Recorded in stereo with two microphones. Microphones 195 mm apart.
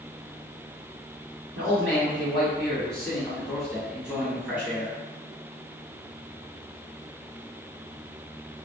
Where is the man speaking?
10° left (ahead or behind), 1.9 m; by 5.0 s 10° right (ahead or behind), 1.7 m.